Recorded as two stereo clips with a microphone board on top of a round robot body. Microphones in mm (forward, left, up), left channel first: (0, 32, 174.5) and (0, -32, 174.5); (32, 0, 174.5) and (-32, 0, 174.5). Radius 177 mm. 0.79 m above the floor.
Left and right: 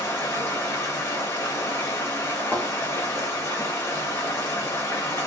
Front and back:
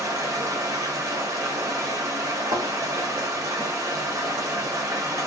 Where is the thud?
170° left, 0.6 m.